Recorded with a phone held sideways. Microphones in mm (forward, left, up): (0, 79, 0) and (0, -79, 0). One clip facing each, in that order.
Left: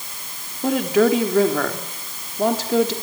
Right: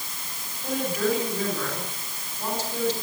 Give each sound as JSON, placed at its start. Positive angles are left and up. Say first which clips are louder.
{"t": 0.6, "sound": "a woman speaking", "louder": "left 9 dB", "side_deg": 75, "distance_m": 4.0}